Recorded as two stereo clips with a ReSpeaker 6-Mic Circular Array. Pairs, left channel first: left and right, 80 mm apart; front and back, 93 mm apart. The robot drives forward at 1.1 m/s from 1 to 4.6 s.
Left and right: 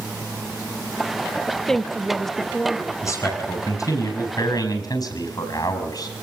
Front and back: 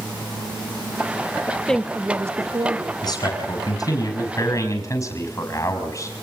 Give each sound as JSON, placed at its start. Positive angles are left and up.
{"t": 1.5, "sound": "a woman speaking", "azimuth_deg": 10, "distance_m": 1.0}
{"t": 3.0, "sound": "a man speaking", "azimuth_deg": 45, "distance_m": 6.5}